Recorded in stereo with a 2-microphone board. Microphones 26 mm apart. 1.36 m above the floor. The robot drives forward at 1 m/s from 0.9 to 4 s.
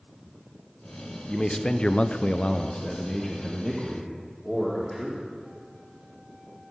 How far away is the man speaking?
About 1.0 m.